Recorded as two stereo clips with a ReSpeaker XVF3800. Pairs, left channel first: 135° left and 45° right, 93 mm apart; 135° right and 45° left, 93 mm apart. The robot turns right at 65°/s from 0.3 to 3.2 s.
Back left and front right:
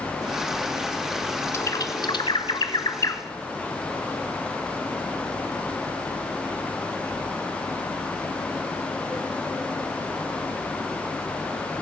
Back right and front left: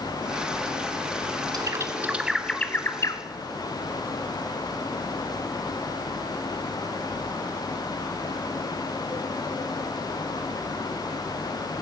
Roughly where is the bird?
Left.